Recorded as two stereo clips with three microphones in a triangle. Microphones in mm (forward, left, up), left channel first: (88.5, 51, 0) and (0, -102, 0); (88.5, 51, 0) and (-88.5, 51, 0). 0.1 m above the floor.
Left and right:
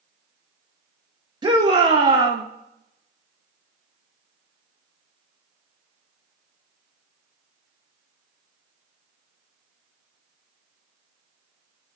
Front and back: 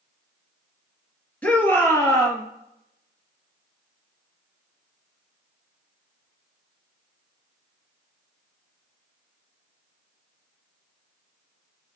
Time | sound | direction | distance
1.4 | a shout | 75° right | 1.8 m